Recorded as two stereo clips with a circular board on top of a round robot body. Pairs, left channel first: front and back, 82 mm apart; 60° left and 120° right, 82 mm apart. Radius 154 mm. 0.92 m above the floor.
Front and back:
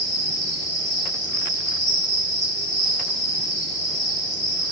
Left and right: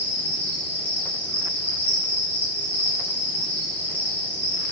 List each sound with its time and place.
0.0 s an insect: 130° left, 6 m